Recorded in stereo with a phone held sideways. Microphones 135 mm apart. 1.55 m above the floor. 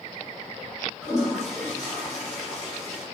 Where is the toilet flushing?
5° right (ahead or behind), 4.5 m.